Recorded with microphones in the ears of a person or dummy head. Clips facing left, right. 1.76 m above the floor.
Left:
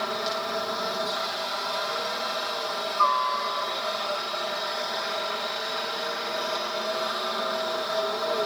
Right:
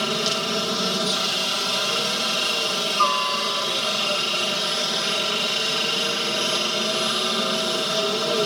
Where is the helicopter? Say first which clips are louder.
Right 4 dB; 45° right (ahead or behind).